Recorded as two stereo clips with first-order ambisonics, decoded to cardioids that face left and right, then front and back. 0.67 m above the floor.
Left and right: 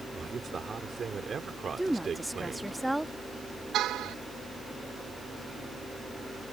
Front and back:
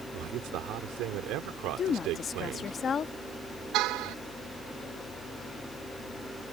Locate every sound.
0.1 s a man speaking: 155° right
1.8 s a woman speaking: 10° right
3.7 s a car horn: 140° right